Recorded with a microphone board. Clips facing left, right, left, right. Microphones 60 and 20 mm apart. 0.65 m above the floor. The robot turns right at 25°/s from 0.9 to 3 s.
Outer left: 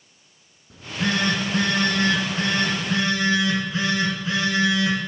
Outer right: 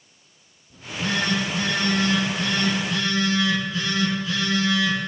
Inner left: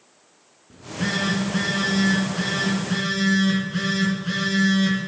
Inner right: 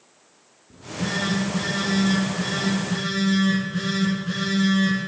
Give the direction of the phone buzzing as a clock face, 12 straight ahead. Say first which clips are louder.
Outer left 2 dB, inner left 2 dB; 9 o'clock.